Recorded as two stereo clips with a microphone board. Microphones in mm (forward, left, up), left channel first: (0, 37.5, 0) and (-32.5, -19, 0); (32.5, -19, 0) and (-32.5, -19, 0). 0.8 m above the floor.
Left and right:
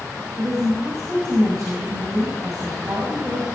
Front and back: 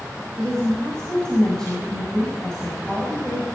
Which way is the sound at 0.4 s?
80° right.